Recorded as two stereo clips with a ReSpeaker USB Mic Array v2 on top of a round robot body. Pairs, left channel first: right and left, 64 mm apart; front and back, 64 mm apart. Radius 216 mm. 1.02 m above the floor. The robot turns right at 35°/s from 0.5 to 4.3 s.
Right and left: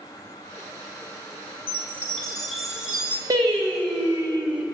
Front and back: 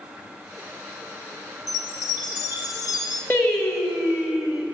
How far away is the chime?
About 0.9 m.